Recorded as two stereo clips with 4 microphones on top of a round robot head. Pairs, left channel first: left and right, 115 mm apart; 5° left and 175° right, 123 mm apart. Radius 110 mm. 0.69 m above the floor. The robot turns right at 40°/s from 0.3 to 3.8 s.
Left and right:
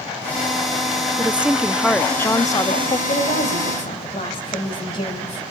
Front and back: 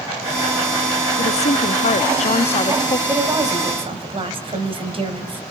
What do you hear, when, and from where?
1.2 s a woman speaking: 20° right, 0.9 m; by 3.0 s 50° left, 0.9 m
3.1 s a woman speaking: 115° left, 3.5 m; by 5.4 s 140° left, 3.5 m